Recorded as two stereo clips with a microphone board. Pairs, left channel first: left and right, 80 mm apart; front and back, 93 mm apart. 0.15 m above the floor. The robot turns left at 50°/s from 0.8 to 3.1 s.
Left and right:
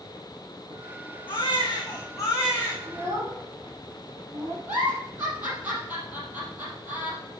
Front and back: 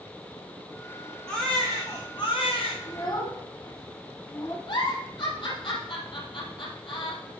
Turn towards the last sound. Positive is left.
turn(degrees=-20)